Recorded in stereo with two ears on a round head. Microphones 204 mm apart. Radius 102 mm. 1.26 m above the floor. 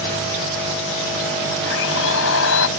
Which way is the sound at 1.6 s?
60° left (ahead or behind).